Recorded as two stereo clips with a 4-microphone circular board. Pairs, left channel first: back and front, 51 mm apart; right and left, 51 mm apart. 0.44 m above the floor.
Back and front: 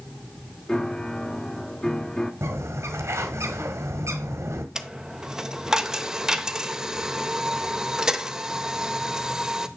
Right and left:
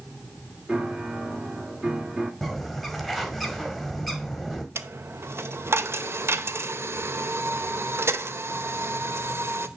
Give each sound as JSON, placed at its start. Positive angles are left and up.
{"t": 0.7, "sound": "a piano", "azimuth_deg": 125, "distance_m": 1.4}
{"t": 2.4, "sound": "a bird", "azimuth_deg": 0, "distance_m": 1.6}
{"t": 4.8, "sound": "a dropped coin", "azimuth_deg": 75, "distance_m": 0.7}